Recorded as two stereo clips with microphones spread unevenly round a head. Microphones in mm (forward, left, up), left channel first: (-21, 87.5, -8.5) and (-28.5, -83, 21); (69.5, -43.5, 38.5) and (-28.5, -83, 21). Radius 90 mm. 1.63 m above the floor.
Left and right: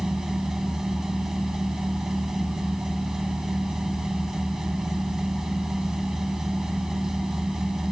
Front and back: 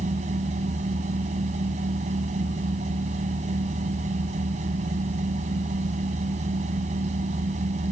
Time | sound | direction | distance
0.0 | a machine running | straight behind | ?